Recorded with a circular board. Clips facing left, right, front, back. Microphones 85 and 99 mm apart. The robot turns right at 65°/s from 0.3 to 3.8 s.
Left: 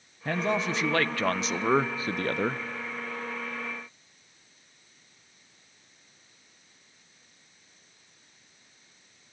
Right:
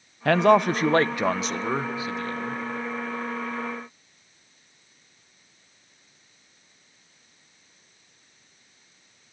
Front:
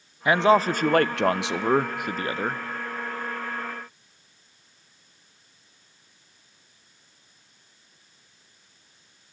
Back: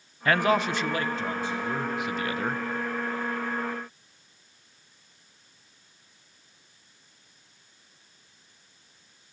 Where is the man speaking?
75° right, 0.5 m; by 2.6 s 75° left, 0.5 m.